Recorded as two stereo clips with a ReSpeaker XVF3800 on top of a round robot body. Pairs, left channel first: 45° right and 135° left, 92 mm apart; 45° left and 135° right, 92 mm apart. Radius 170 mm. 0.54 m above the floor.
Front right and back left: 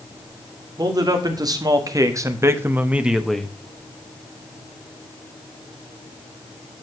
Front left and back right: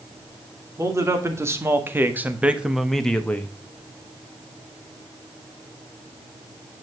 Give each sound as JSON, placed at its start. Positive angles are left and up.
{"t": 0.8, "sound": "a man speaking", "azimuth_deg": 175, "distance_m": 2.5}